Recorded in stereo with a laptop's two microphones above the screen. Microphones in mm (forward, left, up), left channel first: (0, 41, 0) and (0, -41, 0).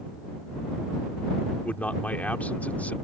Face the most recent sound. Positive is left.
turn(degrees=15)  # may be behind; listen again after turning